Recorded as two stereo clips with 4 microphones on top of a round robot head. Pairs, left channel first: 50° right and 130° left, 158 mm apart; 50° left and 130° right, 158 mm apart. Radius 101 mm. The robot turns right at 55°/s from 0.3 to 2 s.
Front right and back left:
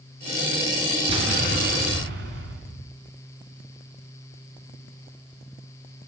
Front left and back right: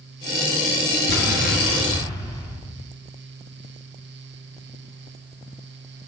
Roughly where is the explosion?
Left.